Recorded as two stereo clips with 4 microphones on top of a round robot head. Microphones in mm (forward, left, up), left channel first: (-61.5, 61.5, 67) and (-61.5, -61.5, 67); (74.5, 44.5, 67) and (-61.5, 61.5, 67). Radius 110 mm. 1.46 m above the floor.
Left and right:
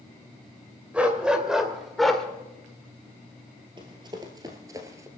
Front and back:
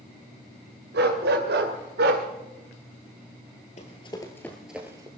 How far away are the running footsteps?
About 1.7 m.